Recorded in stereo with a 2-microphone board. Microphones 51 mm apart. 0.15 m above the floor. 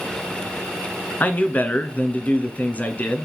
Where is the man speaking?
35° left (ahead or behind), 1.5 m.